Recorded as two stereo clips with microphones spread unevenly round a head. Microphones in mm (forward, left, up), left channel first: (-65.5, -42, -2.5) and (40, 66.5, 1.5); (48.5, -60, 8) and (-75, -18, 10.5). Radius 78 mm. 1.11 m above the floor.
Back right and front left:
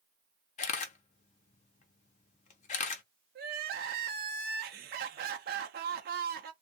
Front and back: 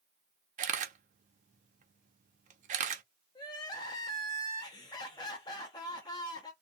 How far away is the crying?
About 0.5 m.